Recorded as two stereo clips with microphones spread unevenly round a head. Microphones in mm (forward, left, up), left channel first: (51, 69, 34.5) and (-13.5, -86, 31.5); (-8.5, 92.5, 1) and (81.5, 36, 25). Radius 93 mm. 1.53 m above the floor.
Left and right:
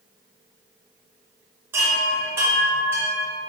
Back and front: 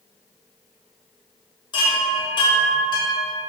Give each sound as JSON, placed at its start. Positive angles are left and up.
{"t": 1.7, "sound": "a chime", "azimuth_deg": 180, "distance_m": 0.7}